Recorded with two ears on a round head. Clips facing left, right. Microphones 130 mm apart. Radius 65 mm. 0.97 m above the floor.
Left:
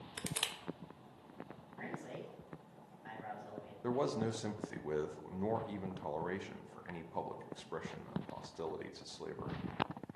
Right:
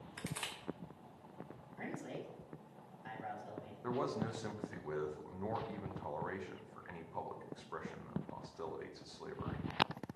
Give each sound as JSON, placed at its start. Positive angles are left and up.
{"t": 0.2, "sound": "crushing", "side_deg": 30, "distance_m": 0.6}
{"t": 1.8, "sound": "a man speaking", "side_deg": -25, "distance_m": 1.5}
{"t": 3.8, "sound": "a man speaking", "side_deg": 25, "distance_m": 0.6}